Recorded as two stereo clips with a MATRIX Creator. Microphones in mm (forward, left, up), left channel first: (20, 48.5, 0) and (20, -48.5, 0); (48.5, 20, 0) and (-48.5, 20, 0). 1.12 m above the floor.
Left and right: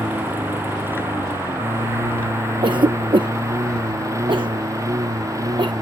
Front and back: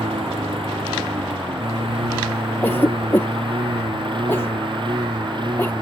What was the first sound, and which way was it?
A lawn mower, 160° right.